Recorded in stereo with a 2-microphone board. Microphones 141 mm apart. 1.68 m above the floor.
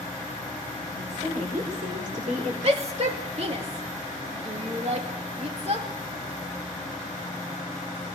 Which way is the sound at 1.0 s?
70° right (ahead or behind).